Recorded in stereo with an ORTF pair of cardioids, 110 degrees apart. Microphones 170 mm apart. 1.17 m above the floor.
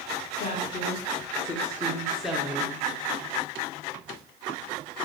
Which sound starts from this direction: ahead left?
A woman speaking, at 0.4 s.